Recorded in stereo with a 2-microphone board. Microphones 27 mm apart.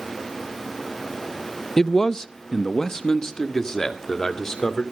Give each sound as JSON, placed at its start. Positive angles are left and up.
{"t": 1.8, "sound": "a man speaking", "side_deg": 20, "distance_m": 0.5}